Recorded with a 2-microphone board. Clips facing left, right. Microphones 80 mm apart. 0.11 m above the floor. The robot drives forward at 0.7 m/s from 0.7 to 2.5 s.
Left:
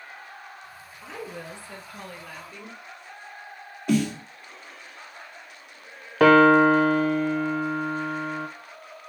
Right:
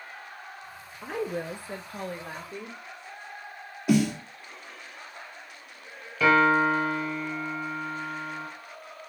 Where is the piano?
60° left (ahead or behind), 0.9 m.